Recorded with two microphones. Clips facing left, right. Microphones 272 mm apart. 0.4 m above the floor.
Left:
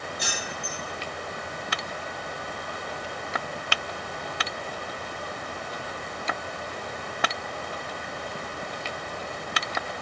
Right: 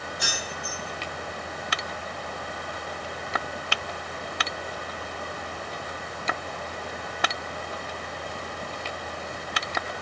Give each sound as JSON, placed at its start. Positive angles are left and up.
{"t": 0.2, "sound": "keys jangling", "side_deg": 0, "distance_m": 2.0}